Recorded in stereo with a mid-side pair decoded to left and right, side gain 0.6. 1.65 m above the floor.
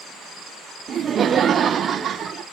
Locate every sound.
0.9 s laughter: 40° right, 0.7 m